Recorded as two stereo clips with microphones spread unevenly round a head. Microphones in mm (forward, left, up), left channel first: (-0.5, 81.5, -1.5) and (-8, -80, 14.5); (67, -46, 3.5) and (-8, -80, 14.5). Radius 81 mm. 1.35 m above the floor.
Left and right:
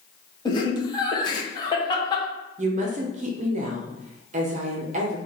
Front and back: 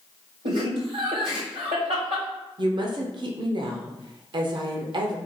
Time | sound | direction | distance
0.5 | laughter | 150° left | 1.0 m
2.6 | a woman speaking | 135° right | 0.7 m